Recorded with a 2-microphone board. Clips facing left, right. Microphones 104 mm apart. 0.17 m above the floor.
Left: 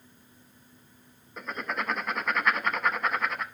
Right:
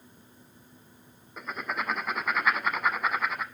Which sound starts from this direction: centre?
Writing, at 1.4 s.